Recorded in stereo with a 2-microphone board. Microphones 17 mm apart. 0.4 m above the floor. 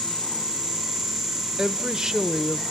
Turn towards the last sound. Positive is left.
turn(degrees=-40)  # may be behind; listen again after turning